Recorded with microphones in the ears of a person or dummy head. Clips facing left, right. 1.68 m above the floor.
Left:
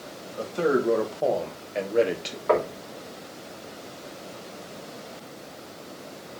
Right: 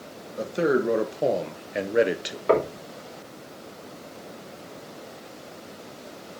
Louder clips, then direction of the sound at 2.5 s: Right 2 dB; 45° right (ahead or behind).